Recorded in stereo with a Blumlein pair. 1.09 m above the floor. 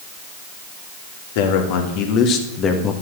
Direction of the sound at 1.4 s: 50° left.